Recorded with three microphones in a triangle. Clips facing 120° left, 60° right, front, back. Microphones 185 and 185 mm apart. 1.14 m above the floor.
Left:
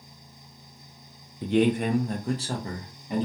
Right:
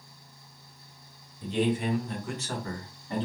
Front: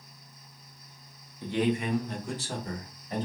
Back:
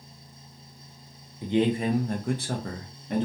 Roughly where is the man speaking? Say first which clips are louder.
Left 5 dB, back 4 dB; left.